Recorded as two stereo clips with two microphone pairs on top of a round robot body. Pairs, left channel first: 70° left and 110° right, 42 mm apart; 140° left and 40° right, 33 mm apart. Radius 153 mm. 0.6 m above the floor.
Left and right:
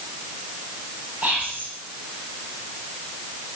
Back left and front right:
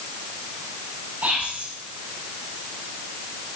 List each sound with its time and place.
1.2 s whispering: 60° right, 4 m